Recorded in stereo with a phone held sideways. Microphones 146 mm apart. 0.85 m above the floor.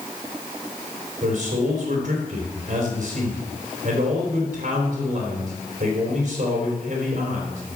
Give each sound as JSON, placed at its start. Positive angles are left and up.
{"t": 1.2, "sound": "a man speaking", "side_deg": -60, "distance_m": 4.0}